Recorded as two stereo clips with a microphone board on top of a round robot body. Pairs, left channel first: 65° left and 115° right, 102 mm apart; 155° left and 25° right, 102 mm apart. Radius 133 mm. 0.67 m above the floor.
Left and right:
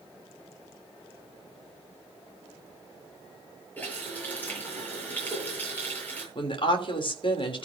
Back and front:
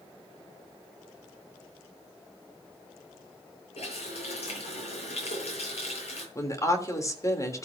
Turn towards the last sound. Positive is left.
turn(degrees=100)